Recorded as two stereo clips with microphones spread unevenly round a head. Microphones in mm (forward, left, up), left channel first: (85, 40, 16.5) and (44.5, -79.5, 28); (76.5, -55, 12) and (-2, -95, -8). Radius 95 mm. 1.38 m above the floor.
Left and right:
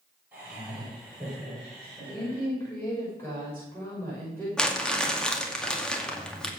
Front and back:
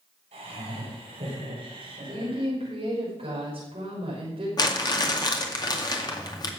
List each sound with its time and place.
0.3 s laughter: 170° left, 5.5 m; by 2.5 s 150° left, 4.5 m
2.1 s a woman speaking: 150° left, 6 m
4.6 s crumpling: 15° right, 2.5 m